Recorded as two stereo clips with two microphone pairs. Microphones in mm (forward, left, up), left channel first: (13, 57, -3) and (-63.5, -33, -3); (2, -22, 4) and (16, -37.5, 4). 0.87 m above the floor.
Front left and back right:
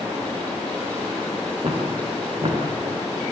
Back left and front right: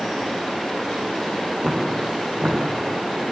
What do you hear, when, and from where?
1.6 s footsteps: 90° right, 7 m